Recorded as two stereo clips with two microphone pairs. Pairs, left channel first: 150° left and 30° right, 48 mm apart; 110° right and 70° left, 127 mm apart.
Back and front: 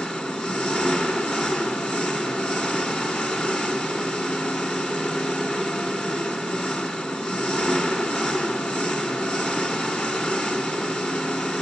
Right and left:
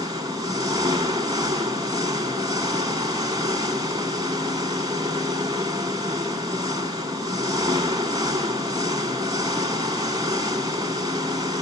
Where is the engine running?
100° left, 1.5 m.